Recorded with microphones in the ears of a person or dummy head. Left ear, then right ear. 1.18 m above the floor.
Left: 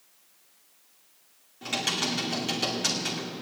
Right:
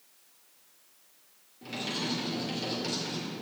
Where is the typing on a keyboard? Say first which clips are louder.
Left 6 dB; 50° left (ahead or behind), 2.5 m.